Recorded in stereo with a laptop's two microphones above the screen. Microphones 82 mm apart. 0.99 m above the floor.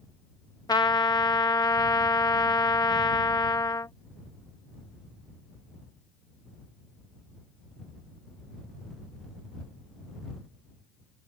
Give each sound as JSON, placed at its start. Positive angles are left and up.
{"t": 0.7, "sound": "a trumpet", "side_deg": 55}